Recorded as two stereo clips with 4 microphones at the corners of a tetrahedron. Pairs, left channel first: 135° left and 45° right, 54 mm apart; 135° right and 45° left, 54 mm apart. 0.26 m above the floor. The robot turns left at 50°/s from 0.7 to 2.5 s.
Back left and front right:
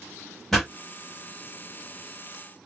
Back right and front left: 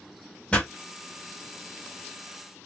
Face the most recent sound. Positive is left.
turn(degrees=120)